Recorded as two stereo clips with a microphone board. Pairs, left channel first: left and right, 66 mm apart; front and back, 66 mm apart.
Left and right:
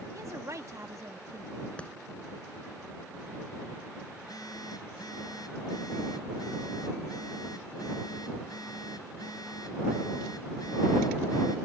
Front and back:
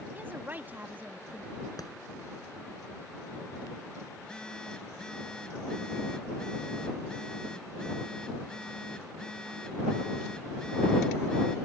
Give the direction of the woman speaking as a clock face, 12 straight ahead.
4 o'clock.